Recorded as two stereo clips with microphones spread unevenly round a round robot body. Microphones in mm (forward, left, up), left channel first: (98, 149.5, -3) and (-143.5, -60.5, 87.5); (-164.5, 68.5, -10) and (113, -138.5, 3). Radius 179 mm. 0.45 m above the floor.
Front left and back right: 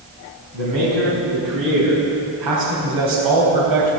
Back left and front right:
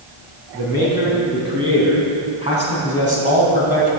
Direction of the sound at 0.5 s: 115° right.